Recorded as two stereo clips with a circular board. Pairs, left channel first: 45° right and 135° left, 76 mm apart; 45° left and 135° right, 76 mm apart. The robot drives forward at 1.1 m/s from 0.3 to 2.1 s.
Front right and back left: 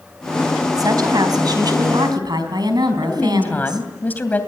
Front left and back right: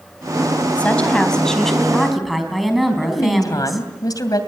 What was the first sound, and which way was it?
A woman speaking, 115° left.